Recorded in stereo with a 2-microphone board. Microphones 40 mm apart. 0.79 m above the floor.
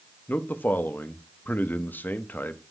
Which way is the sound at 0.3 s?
55° left (ahead or behind).